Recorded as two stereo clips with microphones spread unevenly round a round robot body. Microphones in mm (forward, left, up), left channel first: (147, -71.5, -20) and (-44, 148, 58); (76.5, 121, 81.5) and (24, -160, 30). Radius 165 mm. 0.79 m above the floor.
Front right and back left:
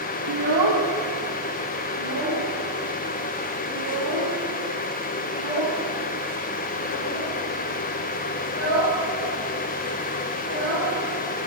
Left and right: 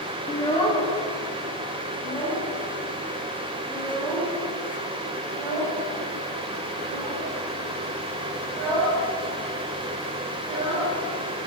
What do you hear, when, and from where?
0.3 s a child speaking: 160° left, 0.8 m; by 11.5 s 170° left, 11 m